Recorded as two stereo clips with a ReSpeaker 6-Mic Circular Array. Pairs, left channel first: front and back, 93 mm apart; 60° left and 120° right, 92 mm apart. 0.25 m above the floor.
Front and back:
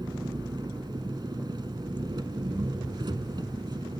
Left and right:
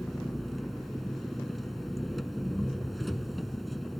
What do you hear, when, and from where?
0.0 s an engine running: 150° left, 1.0 m